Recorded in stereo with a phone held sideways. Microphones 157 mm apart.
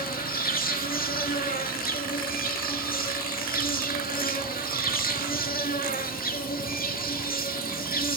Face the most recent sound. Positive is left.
turn(degrees=70)  # may be behind; listen again after turning